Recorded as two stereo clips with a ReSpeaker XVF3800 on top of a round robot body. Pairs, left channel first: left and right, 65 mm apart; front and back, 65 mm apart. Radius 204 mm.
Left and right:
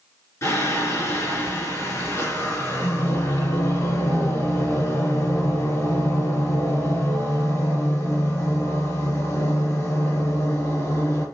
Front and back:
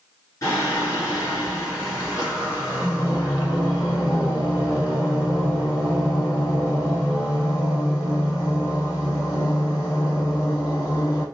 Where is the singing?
45° left, 2.5 m.